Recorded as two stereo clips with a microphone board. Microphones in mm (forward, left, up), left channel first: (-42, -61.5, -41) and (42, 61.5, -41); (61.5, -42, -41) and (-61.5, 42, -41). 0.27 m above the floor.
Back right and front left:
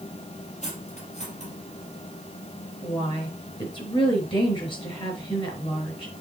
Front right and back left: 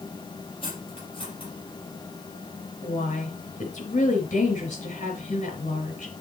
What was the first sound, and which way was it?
Cutlery clinking, 85° right.